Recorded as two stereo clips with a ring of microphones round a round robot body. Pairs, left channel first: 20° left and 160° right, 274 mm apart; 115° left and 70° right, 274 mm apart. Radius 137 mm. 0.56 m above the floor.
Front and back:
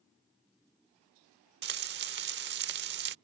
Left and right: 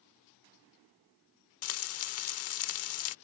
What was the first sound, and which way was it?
Frying, 150° left.